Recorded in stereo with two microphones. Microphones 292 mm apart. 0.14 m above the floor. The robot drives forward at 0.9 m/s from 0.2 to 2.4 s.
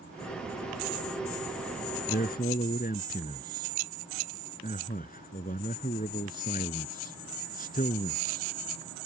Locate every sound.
2.1 s a man speaking: 35° left (ahead or behind); by 9.1 s 30° left (ahead or behind)